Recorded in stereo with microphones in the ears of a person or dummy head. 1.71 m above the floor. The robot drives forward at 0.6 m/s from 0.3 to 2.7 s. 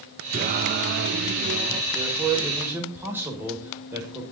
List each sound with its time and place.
0.3 s singing: 35° right (ahead or behind), 0.7 m; by 1.8 s 30° right (ahead or behind), 0.8 m
1.9 s a man speaking: 15° right (ahead or behind), 6 m